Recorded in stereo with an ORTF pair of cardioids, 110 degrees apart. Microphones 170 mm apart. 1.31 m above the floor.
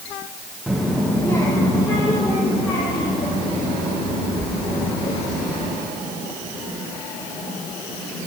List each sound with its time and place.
0.7 s a child speaking: 5° right, 0.7 m; by 5.7 s 35° left, 3.5 m